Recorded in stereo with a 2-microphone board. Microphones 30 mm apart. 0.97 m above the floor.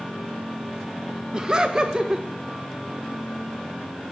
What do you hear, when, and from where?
1.3 s laughter: 30° right (ahead or behind), 0.8 m